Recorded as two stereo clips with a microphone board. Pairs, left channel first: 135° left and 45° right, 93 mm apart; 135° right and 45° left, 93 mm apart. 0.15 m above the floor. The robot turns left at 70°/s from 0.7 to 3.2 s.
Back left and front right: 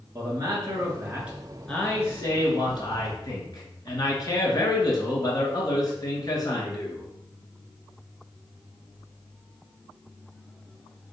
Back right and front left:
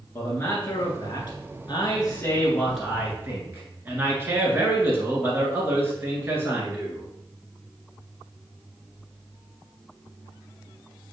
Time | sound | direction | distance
0.1 | a man speaking | 80° right | 1.6 m